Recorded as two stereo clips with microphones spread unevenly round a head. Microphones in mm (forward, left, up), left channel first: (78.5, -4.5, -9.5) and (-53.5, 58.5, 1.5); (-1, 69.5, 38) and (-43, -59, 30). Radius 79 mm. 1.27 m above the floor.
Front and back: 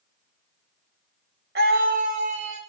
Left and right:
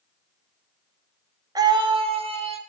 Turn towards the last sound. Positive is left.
turn(degrees=-150)